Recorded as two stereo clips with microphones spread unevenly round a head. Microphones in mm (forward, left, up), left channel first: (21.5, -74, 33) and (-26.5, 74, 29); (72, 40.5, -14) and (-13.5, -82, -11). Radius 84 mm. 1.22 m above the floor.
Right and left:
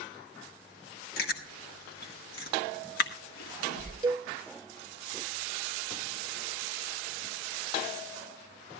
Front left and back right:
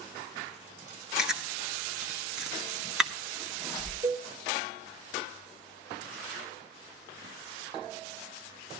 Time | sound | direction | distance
1.2 | chewing | 40° right | 1.7 m
4.0 | a cowbell | straight behind | 2.5 m